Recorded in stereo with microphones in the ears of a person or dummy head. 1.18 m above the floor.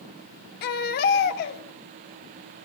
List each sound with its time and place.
0.6 s a baby crying: 50° left (ahead or behind), 2.0 m